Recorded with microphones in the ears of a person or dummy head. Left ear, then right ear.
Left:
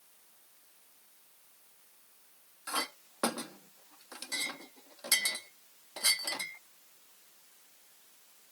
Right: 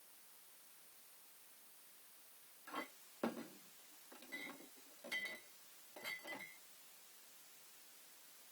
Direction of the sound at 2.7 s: 60° left (ahead or behind).